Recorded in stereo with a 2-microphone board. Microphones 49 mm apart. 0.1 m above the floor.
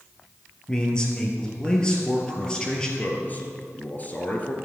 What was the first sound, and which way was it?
A man speaking, 15° left (ahead or behind).